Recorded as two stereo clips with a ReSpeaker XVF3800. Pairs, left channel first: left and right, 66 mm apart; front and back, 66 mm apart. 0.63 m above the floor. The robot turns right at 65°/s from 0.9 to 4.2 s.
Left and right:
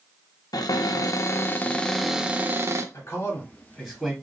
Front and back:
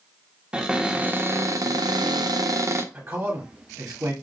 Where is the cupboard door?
105° left, 0.6 m; by 2.8 s 125° right, 0.6 m.